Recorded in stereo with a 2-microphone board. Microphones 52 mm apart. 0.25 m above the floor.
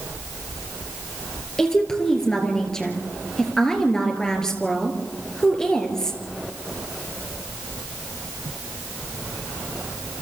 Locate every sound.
1.6 s a woman speaking: 10° left (ahead or behind), 3.5 m